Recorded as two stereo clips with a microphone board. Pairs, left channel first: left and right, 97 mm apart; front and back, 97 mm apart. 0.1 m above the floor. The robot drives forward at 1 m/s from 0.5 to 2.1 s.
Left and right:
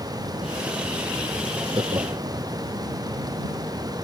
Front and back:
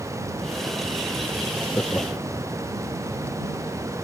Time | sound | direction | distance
1.7 | laughter | 60° right | ?